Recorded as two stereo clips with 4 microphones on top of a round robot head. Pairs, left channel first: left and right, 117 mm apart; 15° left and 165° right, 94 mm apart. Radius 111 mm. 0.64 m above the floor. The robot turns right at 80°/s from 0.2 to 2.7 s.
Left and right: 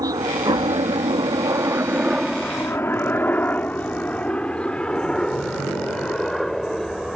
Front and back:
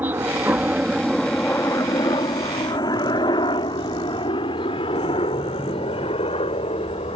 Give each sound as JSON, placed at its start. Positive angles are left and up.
{"t": 0.0, "sound": "a helicopter", "azimuth_deg": -115}